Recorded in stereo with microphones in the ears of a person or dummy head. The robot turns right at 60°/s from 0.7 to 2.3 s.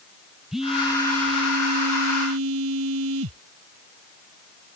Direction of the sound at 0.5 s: Straight behind.